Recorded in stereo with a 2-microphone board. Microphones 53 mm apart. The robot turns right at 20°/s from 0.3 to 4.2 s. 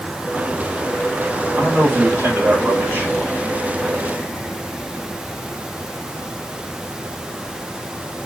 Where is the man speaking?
145° right, 6 m; by 3.1 s 110° right, 6 m.